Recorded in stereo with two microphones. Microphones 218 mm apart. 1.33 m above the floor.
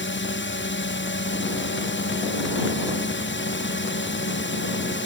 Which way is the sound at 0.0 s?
55° left (ahead or behind).